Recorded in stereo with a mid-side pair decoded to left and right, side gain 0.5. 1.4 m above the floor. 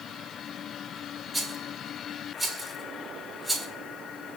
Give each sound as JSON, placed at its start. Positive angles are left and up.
{"t": 1.3, "sound": "a rattle", "azimuth_deg": -5, "distance_m": 1.2}